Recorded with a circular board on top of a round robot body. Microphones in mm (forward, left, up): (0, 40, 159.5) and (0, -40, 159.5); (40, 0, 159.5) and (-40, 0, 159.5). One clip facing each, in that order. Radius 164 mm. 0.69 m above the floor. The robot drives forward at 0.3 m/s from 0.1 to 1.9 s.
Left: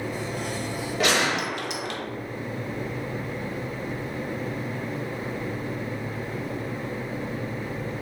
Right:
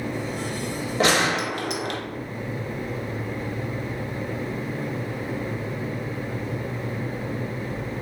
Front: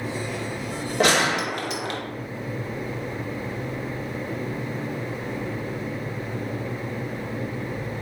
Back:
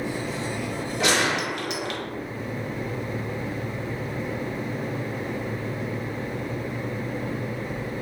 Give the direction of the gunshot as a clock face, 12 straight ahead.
1 o'clock.